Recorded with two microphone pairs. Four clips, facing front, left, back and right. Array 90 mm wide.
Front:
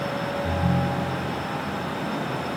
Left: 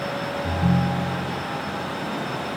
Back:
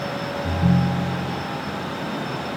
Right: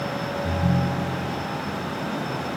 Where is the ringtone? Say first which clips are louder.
Left 2 dB, back 5 dB; 165° left.